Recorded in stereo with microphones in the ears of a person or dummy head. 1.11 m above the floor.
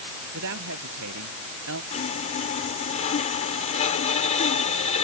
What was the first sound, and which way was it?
A woman speaking, 70° right (ahead or behind).